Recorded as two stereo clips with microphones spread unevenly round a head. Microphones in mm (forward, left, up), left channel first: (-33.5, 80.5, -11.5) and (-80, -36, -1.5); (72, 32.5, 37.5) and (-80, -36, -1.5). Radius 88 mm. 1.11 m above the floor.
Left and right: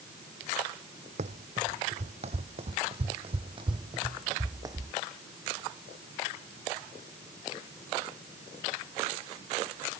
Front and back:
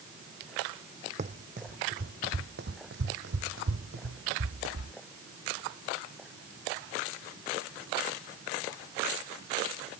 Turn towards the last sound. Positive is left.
turn(degrees=-170)